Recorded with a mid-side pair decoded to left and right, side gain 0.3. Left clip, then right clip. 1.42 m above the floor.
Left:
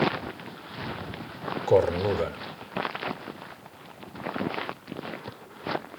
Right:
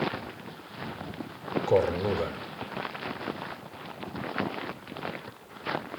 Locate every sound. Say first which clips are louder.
1.7 s a man speaking: left 3 dB; 35° left, 0.6 m